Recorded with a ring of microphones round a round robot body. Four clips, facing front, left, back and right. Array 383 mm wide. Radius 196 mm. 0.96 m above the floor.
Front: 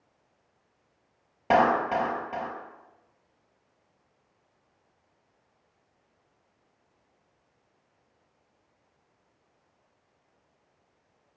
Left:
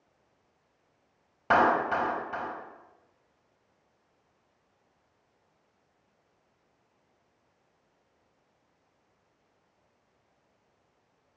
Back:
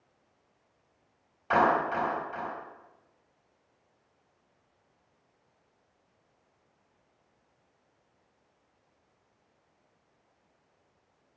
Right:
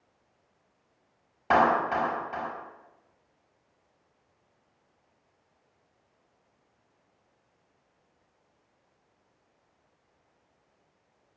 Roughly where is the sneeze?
I don't hear a sneeze.